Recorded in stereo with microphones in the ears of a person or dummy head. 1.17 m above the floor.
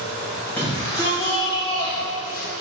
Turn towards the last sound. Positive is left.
turn(degrees=45)  # may be behind; listen again after turning